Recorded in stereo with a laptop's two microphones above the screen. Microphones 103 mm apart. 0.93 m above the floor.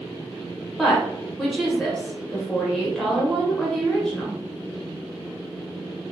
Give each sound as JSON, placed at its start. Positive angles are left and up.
{"t": 0.8, "sound": "a woman speaking", "side_deg": 5, "distance_m": 0.8}